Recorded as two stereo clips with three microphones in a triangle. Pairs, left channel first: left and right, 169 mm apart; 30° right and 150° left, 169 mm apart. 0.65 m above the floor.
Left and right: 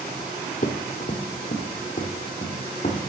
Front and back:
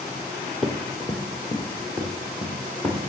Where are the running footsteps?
55° left, 1.4 m; by 3.0 s 50° left, 3 m.